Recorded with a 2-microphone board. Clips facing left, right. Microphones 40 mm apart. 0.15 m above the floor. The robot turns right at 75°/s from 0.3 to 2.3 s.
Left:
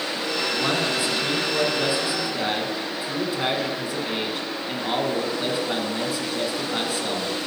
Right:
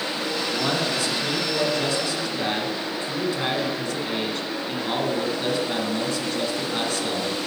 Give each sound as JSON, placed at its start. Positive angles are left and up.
{"t": 0.5, "sound": "a man speaking", "side_deg": 5, "distance_m": 1.2}